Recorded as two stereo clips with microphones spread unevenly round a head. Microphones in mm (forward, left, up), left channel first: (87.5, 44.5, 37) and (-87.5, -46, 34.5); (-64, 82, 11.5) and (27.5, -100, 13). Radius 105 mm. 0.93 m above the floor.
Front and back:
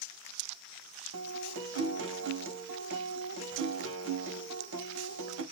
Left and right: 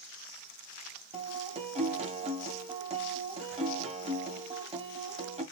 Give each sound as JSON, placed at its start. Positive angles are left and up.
{"t": 1.1, "sound": "a guitar", "azimuth_deg": -125, "distance_m": 1.5}